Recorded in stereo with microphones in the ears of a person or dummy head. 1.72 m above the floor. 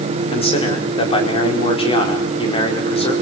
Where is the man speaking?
35° left (ahead or behind), 4.5 m.